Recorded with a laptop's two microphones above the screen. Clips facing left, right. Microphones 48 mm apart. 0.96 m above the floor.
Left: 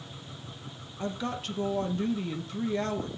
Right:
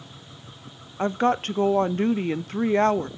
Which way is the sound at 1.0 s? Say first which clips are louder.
Right 11 dB; 55° right (ahead or behind).